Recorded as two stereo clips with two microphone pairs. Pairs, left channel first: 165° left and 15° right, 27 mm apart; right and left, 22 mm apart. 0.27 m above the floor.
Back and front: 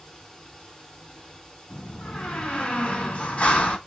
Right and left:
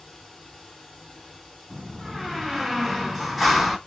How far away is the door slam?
About 1.8 m.